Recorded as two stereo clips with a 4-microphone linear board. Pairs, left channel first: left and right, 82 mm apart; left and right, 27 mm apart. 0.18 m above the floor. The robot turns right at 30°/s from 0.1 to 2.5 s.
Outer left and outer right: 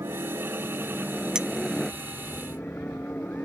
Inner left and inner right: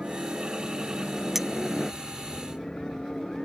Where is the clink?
10° right (ahead or behind).